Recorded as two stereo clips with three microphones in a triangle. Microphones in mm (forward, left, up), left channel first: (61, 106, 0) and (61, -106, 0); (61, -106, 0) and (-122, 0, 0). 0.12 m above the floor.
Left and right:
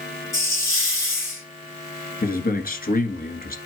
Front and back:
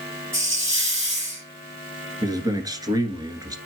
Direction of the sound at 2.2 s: 85° left.